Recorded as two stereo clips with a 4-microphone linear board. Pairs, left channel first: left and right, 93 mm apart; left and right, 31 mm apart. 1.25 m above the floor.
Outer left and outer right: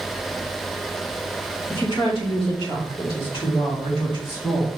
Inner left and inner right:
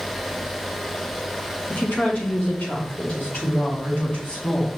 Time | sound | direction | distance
1.7 | a woman speaking | 70° left (ahead or behind) | 1.5 m